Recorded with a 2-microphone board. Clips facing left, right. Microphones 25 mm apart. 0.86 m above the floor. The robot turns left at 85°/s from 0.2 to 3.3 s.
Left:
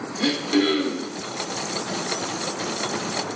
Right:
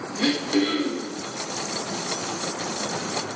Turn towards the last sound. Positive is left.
turn(degrees=-70)